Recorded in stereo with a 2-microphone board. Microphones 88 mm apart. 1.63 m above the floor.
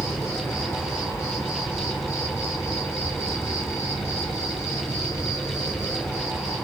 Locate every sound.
0.0 s an insect: 35° left (ahead or behind), 0.8 m